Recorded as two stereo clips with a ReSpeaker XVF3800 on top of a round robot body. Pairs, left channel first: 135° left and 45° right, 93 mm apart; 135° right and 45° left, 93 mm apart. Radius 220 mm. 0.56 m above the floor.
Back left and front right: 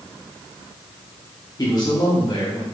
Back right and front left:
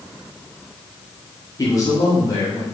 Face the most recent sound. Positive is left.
turn(degrees=180)